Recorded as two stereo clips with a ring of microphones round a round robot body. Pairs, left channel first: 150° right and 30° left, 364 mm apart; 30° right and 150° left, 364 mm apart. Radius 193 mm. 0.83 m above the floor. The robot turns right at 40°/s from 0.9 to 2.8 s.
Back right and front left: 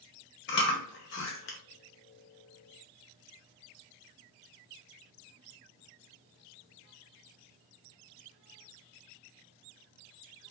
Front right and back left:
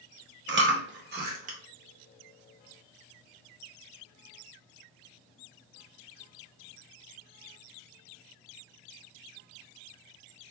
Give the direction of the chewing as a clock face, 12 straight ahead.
6 o'clock.